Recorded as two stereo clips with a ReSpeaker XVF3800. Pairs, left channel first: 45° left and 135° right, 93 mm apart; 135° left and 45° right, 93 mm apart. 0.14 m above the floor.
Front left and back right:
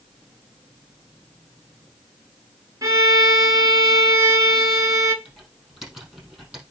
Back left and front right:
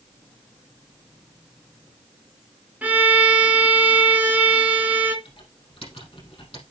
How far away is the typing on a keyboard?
About 4.5 m.